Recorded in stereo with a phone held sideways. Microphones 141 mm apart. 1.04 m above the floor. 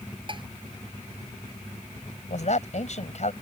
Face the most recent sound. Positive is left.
turn(degrees=60)  # may be behind; listen again after turning